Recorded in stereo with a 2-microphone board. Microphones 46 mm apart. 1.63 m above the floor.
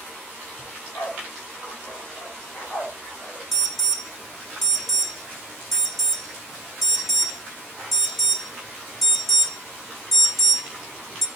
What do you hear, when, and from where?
0.6 s a dog barking: 70° left (ahead or behind), 3.5 m; by 3.4 s 35° left (ahead or behind), 3.5 m
3.5 s an alarm: 5° left (ahead or behind), 1.7 m